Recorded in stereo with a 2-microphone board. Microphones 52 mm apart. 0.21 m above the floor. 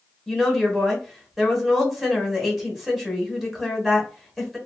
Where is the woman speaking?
Centre (ahead or behind), 1.2 m.